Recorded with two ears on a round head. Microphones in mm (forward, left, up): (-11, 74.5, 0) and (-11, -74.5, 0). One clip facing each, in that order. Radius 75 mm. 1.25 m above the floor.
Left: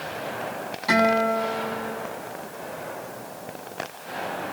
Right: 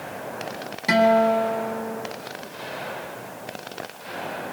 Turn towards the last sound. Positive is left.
turn(degrees=-25)  # may be behind; listen again after turning